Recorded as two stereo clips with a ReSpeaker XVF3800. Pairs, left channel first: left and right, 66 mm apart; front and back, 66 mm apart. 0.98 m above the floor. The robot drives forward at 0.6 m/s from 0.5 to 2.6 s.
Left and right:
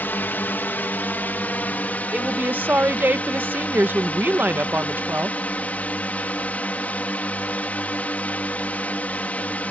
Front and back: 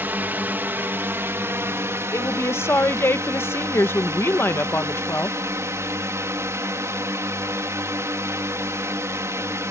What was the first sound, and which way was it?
A drone, 135° left.